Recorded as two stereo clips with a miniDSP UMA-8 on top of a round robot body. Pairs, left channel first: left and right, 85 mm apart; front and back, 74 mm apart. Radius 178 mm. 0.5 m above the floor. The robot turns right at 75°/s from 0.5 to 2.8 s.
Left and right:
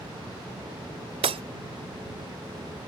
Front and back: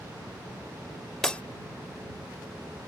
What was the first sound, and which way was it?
Breaking glass, 85° right.